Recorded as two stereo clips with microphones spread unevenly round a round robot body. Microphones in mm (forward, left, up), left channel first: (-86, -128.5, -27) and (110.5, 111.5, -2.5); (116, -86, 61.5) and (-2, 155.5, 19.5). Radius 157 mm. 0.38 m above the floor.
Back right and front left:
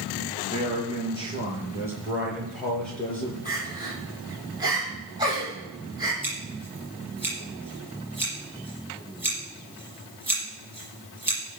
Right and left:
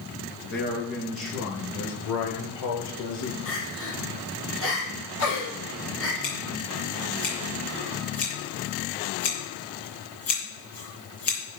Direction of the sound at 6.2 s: 35° right.